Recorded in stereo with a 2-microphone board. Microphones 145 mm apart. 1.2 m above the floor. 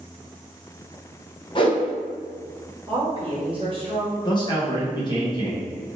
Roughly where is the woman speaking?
Right.